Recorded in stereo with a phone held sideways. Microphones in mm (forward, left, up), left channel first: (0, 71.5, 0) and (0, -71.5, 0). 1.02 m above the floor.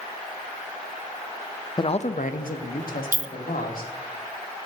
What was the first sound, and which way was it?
A man speaking, 30° left (ahead or behind).